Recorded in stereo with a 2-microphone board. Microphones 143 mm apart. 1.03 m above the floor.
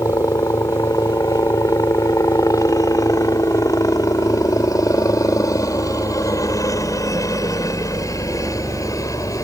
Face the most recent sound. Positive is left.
turn(degrees=25)  # may be behind; listen again after turning